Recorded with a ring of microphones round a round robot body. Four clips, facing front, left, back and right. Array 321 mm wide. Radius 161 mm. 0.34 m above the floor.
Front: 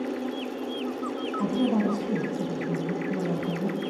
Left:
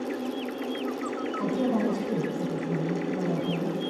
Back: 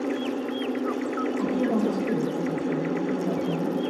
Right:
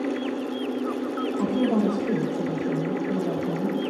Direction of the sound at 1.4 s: 115° right.